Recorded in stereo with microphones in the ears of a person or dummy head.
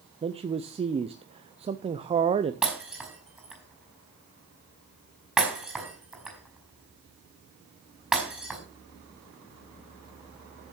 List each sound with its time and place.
0.2 s a man speaking: 25° right (ahead or behind), 0.5 m
2.6 s breaking glass: 5° right (ahead or behind), 5.5 m